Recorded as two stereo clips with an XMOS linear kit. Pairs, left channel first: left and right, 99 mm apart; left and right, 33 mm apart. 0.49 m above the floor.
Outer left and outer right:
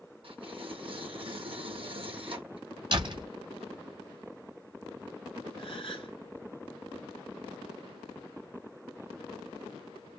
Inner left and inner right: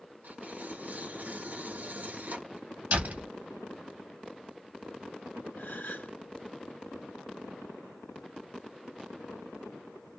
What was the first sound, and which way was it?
Tearing paper, 65° right (ahead or behind).